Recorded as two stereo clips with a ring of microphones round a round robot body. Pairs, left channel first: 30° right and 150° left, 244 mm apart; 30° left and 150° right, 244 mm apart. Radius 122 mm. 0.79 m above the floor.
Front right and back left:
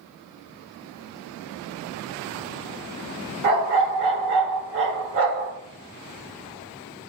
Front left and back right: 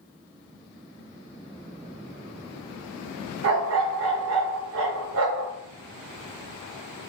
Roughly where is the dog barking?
Behind.